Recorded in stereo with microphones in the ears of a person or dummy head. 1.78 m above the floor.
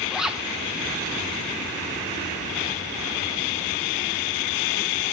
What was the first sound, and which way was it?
A zipper, 5° right (ahead or behind).